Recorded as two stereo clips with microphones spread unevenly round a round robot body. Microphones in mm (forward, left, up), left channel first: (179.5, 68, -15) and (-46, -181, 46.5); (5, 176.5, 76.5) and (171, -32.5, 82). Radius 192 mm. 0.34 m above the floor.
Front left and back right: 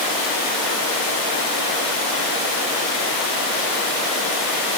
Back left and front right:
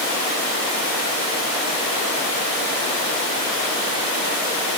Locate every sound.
Only background noise.